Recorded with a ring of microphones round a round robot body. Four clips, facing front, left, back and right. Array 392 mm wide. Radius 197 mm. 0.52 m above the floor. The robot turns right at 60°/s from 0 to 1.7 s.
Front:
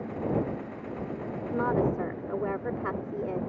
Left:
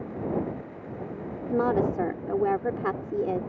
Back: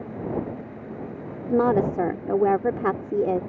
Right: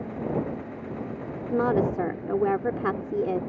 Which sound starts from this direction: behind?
A woman speaking, at 1.5 s.